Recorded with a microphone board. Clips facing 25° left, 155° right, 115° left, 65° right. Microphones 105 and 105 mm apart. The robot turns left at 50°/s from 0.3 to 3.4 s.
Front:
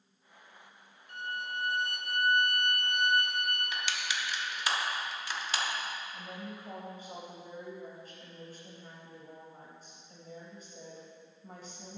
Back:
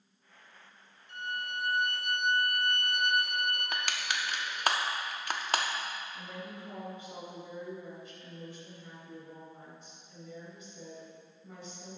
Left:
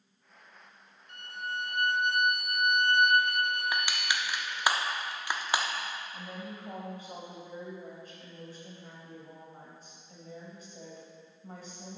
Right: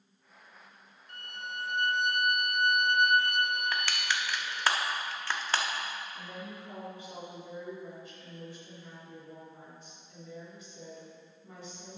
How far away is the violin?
About 1.8 m.